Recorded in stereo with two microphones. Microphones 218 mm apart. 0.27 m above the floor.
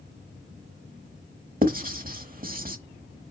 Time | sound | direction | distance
1.6 | writing | 40° right (ahead or behind) | 0.9 m